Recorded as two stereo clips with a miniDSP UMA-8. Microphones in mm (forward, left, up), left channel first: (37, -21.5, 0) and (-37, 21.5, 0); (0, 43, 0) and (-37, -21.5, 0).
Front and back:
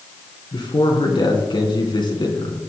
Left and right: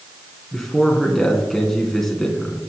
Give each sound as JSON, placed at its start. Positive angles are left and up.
{"t": 0.5, "sound": "a man speaking", "azimuth_deg": -25, "distance_m": 3.0}